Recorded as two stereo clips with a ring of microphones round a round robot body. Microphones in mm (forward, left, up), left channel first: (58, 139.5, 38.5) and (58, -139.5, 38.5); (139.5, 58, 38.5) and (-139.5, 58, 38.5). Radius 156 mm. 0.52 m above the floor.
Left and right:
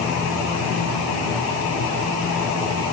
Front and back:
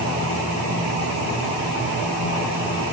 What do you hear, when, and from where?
Only background noise.